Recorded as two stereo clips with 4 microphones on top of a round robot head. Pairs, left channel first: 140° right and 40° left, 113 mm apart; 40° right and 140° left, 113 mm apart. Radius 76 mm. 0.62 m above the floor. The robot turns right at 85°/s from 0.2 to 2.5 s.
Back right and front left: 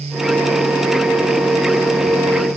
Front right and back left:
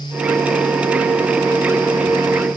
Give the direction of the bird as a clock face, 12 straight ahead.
I don't hear a bird.